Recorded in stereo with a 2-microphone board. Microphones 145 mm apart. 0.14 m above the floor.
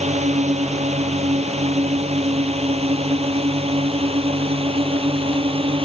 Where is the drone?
50° right (ahead or behind); by 5.8 s 40° right (ahead or behind).